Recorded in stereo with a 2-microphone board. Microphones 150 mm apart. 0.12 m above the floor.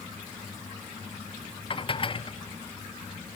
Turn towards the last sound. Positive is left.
turn(degrees=35)  # may be behind; listen again after turning